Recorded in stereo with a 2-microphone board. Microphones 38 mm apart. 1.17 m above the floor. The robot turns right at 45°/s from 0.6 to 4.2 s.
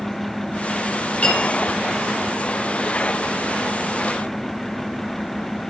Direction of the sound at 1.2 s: 35° left (ahead or behind).